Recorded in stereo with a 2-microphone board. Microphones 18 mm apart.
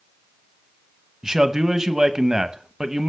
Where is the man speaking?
30° right (ahead or behind), 0.8 m.